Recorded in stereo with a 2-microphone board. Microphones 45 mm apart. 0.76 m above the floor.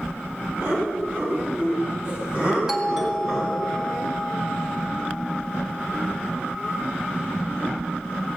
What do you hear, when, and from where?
0.6 s laughter: 55° right (ahead or behind), 5.5 m; by 3.6 s 5° right (ahead or behind), 3.5 m
2.7 s a doorbell: 15° right (ahead or behind), 2 m